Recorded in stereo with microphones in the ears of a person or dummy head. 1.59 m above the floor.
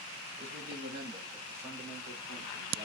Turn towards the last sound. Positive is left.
turn(degrees=10)  # may be behind; listen again after turning